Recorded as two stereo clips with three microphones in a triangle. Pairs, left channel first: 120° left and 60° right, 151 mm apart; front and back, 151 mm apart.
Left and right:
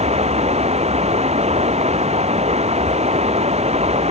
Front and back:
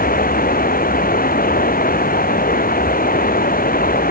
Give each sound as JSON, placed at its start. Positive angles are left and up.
{"t": 0.0, "sound": "running water", "azimuth_deg": -15}